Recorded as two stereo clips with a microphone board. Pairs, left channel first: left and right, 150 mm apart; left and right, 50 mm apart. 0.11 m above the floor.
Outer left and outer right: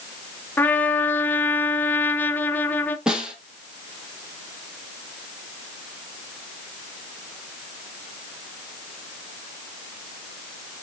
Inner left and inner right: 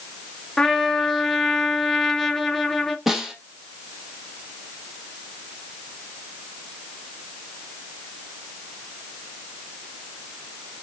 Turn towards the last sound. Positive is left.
turn(degrees=-5)  # may be behind; listen again after turning